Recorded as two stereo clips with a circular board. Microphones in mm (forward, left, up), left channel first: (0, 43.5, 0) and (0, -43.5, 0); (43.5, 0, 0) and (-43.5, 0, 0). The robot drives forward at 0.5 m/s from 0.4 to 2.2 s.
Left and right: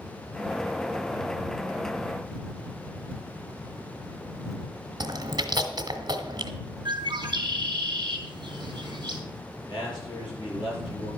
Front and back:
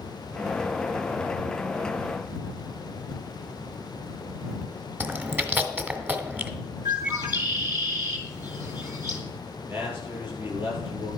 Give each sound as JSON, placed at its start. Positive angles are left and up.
{"t": 5.0, "sound": "chewing", "azimuth_deg": -115, "distance_m": 1.6}
{"t": 6.8, "sound": "a bird", "azimuth_deg": -125, "distance_m": 3.5}
{"t": 9.7, "sound": "a man speaking", "azimuth_deg": 120, "distance_m": 7.0}